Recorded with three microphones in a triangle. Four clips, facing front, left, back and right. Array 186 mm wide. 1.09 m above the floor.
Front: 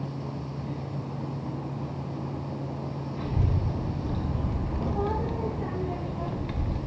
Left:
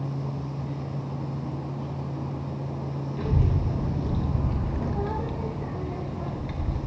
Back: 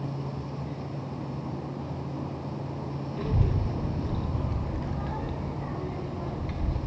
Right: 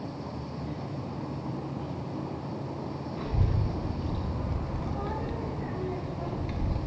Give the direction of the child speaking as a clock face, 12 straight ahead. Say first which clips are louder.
Left 5 dB, back 1 dB; 8 o'clock.